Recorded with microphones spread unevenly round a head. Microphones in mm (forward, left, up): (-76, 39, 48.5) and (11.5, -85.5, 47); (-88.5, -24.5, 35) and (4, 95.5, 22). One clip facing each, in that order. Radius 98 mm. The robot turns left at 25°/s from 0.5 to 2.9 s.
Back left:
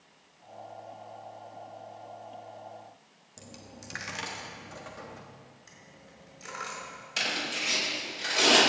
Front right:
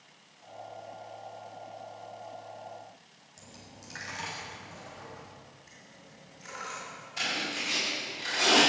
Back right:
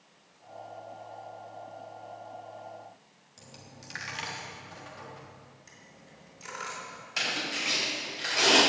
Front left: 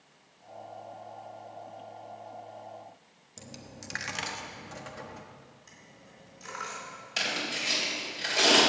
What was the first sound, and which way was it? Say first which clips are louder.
A dropped coin: back left 4 dB, front left 5 dB; 85° left.